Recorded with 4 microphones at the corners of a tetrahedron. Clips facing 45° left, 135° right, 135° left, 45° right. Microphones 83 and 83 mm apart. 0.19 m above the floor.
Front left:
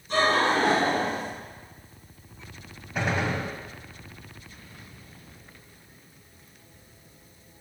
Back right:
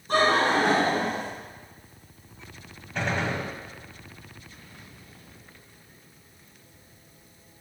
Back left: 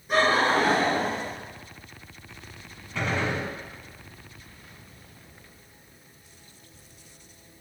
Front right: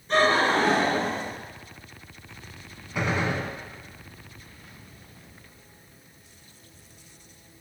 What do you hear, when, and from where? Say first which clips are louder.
0.1 s laughter: back right 1 dB, front right 1 dB; 150° right, 1.8 m
3.0 s a gunshot: front left 1 dB, front right 1 dB; 10° right, 1.1 m